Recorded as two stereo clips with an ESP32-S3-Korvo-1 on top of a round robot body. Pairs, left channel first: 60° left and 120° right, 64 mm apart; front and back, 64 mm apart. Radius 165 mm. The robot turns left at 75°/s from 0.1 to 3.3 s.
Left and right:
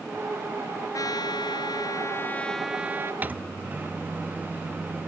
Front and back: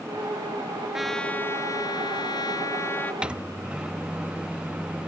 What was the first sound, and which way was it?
A trumpet, 95° left.